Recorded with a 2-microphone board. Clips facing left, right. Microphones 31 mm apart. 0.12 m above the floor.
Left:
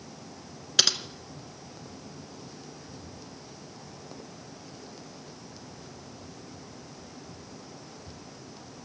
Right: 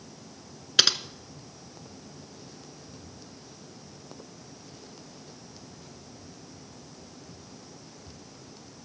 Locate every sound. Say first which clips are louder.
0.8 s typing on a keyboard: right 2 dB; 15° right (ahead or behind), 0.8 m